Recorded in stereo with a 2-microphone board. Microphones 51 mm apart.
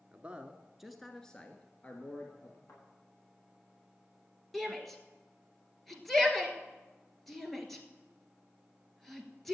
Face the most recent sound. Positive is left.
turn(degrees=5)  # may be behind; listen again after turning